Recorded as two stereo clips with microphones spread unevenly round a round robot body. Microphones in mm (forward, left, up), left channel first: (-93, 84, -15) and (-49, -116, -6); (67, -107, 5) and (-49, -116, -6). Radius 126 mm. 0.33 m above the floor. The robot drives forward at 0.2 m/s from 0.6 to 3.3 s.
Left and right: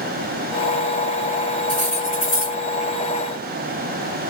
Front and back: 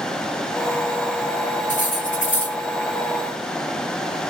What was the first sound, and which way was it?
Cutlery clinking, 60° left.